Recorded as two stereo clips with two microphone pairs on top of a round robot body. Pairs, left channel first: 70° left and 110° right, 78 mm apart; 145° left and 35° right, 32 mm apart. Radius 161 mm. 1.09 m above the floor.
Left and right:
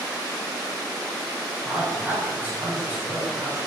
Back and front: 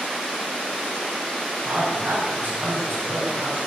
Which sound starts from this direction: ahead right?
A man speaking, at 1.6 s.